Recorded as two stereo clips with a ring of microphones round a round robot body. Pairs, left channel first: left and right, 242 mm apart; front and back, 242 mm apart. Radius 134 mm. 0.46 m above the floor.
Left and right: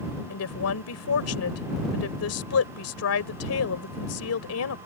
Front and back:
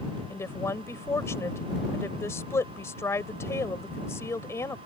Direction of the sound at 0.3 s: 80° left.